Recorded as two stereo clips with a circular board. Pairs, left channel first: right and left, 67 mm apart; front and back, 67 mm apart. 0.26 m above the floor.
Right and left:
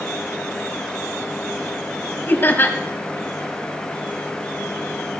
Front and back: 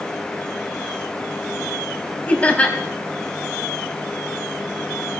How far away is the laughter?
About 1.6 m.